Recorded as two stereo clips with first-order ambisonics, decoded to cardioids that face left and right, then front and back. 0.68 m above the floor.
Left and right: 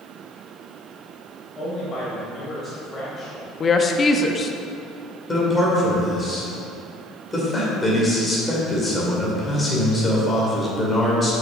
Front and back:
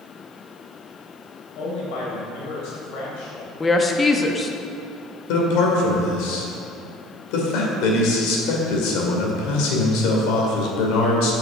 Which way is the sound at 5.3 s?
10° left.